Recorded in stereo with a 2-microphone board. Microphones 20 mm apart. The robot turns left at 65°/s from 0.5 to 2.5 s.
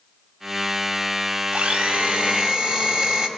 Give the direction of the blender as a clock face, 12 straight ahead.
3 o'clock.